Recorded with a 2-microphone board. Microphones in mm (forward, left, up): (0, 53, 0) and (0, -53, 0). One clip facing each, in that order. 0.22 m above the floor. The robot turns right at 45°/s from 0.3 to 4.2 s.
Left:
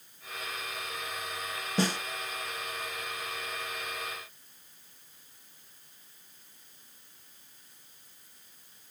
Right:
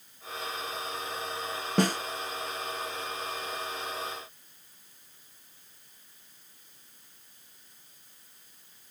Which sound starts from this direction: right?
A snare drum, at 1.8 s.